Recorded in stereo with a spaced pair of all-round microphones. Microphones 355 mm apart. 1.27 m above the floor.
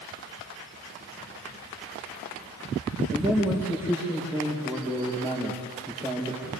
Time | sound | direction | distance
3.1 | a man speaking | 5° right (ahead or behind) | 4.5 m